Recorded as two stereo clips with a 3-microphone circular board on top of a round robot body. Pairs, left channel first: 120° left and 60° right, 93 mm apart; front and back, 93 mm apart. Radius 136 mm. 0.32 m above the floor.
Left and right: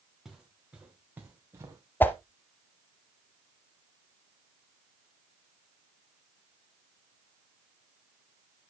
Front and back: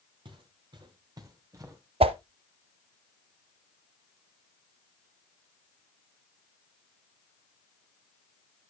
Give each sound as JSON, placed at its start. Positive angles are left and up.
{"t": 0.2, "sound": "footsteps", "azimuth_deg": -150, "distance_m": 3.5}
{"t": 2.0, "sound": "a whoosh", "azimuth_deg": -170, "distance_m": 0.7}